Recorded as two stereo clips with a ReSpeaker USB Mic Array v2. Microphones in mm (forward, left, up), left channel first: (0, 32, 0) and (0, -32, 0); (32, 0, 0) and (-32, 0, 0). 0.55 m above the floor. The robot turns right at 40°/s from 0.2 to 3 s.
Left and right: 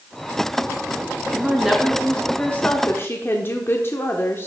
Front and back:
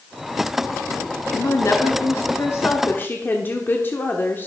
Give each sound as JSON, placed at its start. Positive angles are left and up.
{"t": 1.3, "sound": "a woman speaking", "azimuth_deg": -15, "distance_m": 1.0}